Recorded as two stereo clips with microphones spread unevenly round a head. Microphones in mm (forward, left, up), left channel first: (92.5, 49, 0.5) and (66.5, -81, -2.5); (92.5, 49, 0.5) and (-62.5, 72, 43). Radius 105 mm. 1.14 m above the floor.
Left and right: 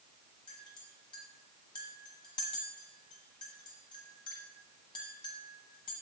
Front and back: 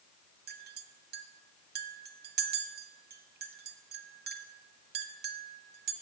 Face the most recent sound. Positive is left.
turn(degrees=150)